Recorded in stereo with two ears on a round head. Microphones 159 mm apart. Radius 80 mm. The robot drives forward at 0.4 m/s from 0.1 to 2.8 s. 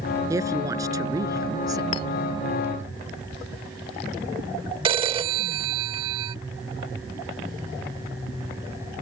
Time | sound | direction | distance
0.3 | a woman speaking | 20° right (ahead or behind) | ?
1.9 | a clink | 30° left (ahead or behind) | ?
4.8 | a phone ringing | 30° right (ahead or behind) | ?